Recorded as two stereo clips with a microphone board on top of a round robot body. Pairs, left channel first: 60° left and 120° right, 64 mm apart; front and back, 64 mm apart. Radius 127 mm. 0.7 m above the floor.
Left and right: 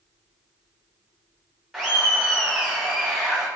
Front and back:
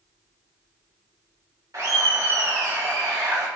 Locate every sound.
1.7 s laughter: 160° left, 0.8 m